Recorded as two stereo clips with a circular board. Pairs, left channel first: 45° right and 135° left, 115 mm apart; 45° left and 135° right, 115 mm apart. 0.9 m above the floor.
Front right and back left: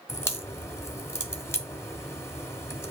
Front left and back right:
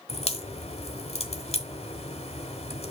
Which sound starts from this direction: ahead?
A crack, at 0.1 s.